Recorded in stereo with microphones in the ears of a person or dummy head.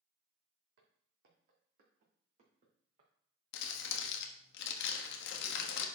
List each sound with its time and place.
0.8 s footsteps: 65° right (ahead or behind), 3.5 m; by 3.1 s 40° right (ahead or behind), 4 m
3.5 s crumpling: 65° left (ahead or behind), 1.3 m